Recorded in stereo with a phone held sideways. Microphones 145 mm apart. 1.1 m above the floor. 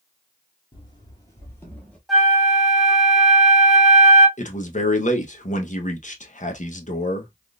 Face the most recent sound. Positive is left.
turn(degrees=55)  # may be behind; listen again after turning